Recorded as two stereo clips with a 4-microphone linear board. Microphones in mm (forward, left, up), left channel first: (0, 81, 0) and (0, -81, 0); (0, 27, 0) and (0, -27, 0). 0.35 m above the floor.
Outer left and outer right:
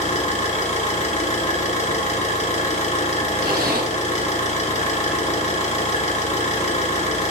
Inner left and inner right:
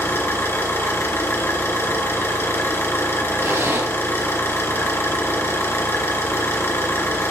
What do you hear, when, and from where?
0.0 s an engine running: 45° left (ahead or behind), 2.5 m
3.4 s a zipper: 65° right (ahead or behind), 1.9 m